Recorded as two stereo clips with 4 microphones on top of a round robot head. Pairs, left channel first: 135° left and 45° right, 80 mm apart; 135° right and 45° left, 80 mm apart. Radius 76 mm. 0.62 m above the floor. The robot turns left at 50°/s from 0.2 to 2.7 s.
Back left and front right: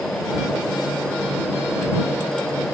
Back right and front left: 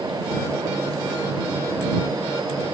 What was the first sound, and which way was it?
Only background noise.